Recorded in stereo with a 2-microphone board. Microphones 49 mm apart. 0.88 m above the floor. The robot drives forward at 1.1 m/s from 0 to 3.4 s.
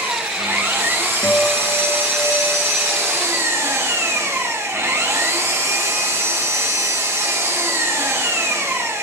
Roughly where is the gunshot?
I don't hear a gunshot.